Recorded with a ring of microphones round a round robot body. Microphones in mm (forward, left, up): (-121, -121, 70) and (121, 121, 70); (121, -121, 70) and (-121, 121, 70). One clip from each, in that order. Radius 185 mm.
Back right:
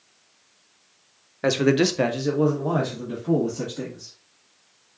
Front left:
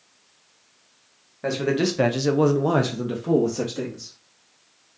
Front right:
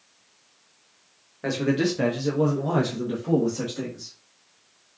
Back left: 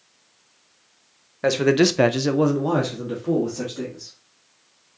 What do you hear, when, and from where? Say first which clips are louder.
1.4 s a man speaking: back right 3 dB, back left 7 dB; 175° right, 0.8 m; by 4.1 s 50° left, 1.9 m